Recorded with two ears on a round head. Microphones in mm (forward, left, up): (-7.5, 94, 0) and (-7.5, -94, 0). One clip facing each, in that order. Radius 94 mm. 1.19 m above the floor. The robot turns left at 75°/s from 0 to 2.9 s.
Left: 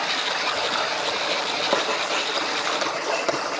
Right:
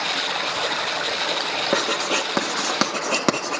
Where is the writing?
20° right (ahead or behind), 1.9 m; by 3.6 s 70° right (ahead or behind), 1.9 m.